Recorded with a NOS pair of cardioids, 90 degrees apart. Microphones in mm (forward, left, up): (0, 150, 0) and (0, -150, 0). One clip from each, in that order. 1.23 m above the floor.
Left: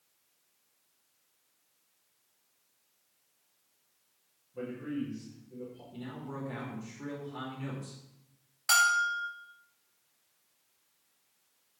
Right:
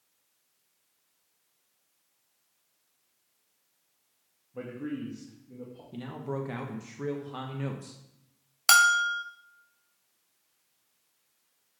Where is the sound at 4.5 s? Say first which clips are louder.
Even; 50° right, 2.5 m.